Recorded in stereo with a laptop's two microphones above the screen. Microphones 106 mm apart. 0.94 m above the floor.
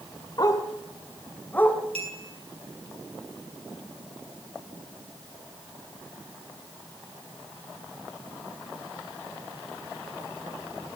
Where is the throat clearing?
No throat clearing in this recording.